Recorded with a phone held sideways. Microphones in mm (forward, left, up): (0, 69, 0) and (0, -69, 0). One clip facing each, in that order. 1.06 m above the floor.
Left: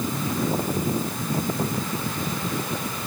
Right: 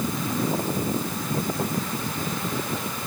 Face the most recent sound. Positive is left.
No sound to turn to.